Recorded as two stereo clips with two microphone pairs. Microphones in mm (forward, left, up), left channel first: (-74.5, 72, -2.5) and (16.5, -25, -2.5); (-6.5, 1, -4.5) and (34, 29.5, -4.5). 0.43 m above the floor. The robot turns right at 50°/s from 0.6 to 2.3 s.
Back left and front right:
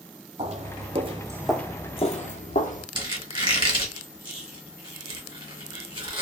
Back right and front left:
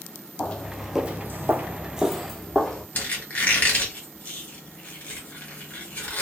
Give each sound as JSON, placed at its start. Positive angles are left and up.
{"t": 0.4, "sound": "footsteps", "azimuth_deg": -80, "distance_m": 0.8}
{"t": 3.0, "sound": "a squeak", "azimuth_deg": -95, "distance_m": 1.0}